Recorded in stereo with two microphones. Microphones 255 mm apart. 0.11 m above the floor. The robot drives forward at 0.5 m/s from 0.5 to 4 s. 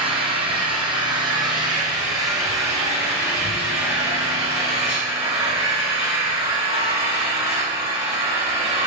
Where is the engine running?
20° right (ahead or behind), 2.0 m; by 8.9 s 10° right (ahead or behind), 3.5 m.